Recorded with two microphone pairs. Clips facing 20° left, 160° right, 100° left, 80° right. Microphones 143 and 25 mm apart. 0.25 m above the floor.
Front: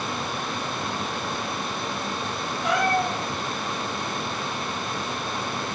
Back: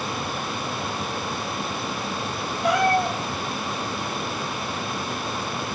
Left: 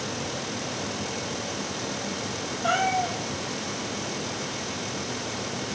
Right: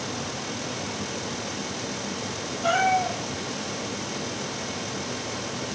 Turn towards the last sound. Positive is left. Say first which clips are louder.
# back 3 dB, right 2 dB
turn(degrees=-145)